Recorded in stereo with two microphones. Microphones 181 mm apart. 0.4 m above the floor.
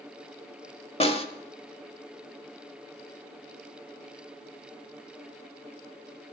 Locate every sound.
1.0 s a snare drum: 35° left (ahead or behind), 1.2 m